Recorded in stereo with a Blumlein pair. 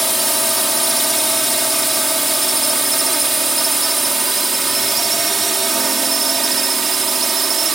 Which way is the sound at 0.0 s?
Straight ahead.